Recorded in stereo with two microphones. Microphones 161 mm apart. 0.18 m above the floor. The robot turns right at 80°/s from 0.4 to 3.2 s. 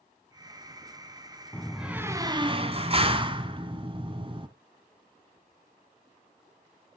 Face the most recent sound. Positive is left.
turn(degrees=-60)